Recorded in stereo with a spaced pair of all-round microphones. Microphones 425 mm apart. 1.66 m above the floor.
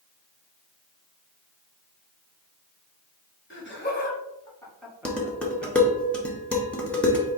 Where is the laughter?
30° left (ahead or behind), 1.6 m; by 5.7 s 25° right (ahead or behind), 1.1 m.